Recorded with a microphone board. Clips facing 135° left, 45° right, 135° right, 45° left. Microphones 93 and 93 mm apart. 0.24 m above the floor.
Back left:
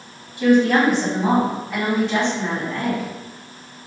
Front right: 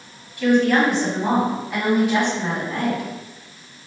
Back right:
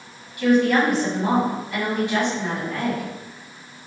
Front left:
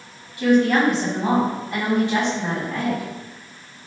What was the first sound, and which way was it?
A woman speaking, 85° left.